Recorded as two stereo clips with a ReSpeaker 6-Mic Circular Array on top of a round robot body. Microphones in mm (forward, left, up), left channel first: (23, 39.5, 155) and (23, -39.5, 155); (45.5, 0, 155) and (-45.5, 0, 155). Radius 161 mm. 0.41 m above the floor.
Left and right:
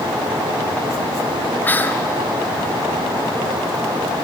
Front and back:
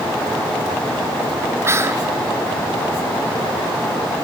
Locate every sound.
1.6 s whispering: 140° left, 1.4 m